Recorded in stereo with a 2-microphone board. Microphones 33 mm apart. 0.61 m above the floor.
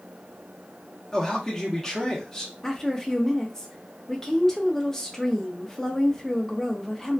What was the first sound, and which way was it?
A man speaking, 15° left (ahead or behind).